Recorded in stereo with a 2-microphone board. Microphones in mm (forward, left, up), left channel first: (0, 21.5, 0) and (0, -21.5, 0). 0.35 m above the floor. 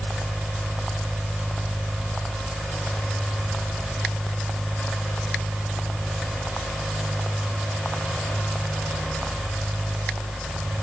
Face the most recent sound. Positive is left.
No sound to turn to.